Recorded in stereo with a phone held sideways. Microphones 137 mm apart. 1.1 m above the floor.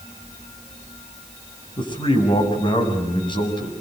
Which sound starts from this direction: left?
A man speaking, at 1.8 s.